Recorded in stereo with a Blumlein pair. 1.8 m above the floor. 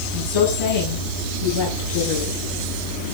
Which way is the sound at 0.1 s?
45° left.